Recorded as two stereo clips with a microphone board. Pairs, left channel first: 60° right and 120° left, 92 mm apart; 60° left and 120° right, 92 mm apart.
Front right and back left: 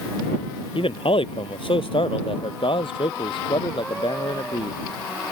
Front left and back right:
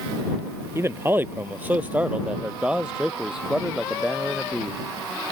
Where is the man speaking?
60° right; by 4.8 s 30° right.